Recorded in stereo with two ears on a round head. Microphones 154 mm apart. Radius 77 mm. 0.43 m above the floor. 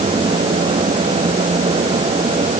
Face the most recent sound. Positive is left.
No sound to turn to.